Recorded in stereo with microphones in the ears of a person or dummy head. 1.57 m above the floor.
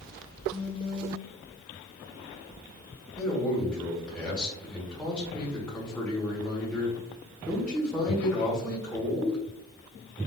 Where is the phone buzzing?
15° left (ahead or behind), 0.5 m.